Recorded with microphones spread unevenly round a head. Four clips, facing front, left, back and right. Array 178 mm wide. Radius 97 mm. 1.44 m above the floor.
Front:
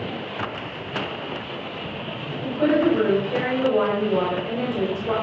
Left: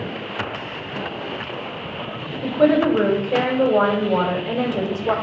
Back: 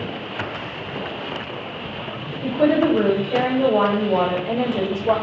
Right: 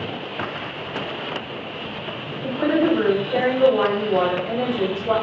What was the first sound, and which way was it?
A woman speaking, 140° left.